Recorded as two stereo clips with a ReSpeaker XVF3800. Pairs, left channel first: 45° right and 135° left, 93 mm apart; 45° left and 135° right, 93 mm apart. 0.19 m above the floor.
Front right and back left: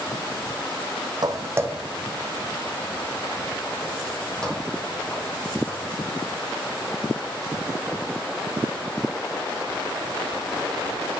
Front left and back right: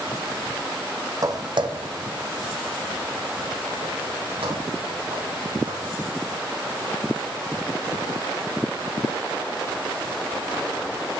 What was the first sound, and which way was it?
Footsteps, 175° left.